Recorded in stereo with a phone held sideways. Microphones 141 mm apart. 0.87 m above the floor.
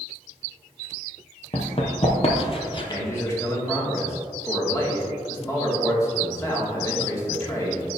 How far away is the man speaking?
About 1.7 m.